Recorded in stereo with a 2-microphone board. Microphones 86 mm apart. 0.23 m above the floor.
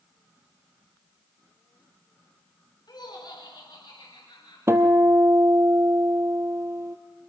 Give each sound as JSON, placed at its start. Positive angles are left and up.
{"t": 2.9, "sound": "laughter", "side_deg": 60, "distance_m": 3.0}
{"t": 4.7, "sound": "a guitar", "side_deg": -35, "distance_m": 1.7}